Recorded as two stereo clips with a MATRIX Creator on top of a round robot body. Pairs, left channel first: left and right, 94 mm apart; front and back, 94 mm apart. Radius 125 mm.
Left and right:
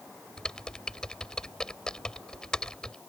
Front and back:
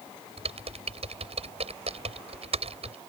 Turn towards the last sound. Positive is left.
turn(degrees=175)